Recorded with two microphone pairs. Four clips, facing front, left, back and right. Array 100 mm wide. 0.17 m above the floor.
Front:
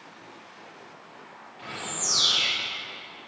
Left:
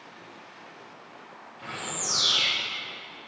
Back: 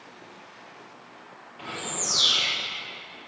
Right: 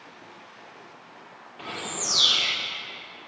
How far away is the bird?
About 5.5 m.